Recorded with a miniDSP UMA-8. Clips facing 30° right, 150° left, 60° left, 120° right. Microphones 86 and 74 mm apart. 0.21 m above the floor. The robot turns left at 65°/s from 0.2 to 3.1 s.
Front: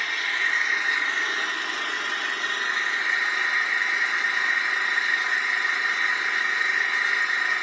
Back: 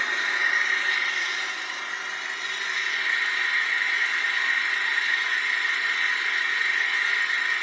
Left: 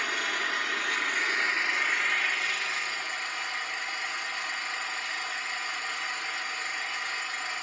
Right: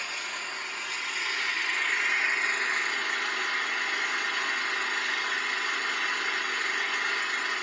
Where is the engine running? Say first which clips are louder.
Back 1 dB, left 6 dB; 85° left, 0.8 m; by 7.6 s 100° right, 0.8 m.